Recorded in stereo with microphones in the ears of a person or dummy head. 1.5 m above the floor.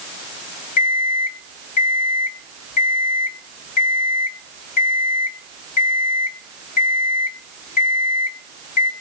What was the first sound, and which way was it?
An alarm clock, 55° left (ahead or behind).